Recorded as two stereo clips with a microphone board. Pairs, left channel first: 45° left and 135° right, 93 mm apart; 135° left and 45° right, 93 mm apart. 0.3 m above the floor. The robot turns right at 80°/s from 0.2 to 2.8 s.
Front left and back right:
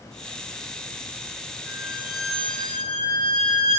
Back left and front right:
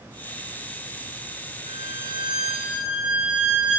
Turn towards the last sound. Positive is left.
turn(degrees=35)